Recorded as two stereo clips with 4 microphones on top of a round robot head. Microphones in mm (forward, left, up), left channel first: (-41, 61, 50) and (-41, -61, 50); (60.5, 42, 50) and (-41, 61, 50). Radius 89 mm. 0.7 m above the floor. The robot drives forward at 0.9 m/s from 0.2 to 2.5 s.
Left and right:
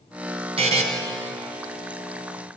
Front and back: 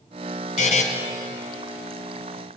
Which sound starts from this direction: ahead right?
A buzzer, at 0.6 s.